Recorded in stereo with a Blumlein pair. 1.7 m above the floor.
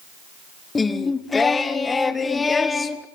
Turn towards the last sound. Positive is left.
turn(degrees=15)